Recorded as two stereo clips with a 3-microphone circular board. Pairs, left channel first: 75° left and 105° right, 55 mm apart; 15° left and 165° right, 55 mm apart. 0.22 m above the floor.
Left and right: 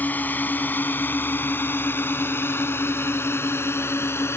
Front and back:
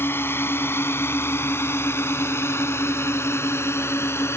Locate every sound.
0.0 s a drone: 30° left; by 4.4 s 45° left